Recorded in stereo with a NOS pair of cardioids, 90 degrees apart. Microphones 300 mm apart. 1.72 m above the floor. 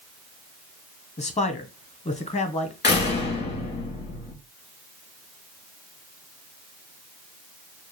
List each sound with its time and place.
1.2 s a man speaking: 20° left, 1.2 m
2.8 s a door slam: 35° left, 2 m